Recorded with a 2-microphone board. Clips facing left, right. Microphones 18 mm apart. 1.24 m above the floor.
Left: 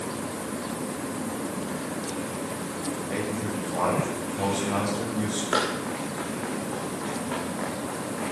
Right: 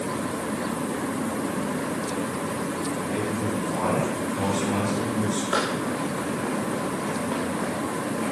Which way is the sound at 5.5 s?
20° left (ahead or behind).